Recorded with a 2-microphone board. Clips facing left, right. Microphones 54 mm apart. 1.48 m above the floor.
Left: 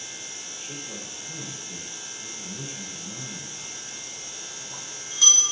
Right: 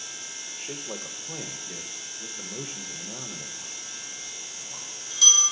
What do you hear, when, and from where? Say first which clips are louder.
0.6 s a man speaking: right 3 dB; 80° right, 0.7 m
3.6 s a bell: left 1 dB; 35° left (ahead or behind), 2.5 m